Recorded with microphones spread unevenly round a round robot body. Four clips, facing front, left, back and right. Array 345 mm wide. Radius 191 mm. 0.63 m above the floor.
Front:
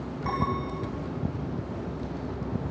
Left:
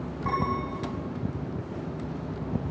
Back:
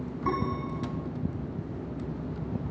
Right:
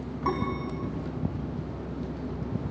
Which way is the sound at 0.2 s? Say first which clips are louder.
Left 1 dB, front 1 dB; 130° right.